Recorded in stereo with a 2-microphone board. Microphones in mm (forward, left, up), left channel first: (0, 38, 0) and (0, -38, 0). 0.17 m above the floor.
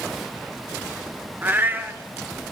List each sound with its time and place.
1.4 s a cat meowing: 25° right (ahead or behind), 1.4 m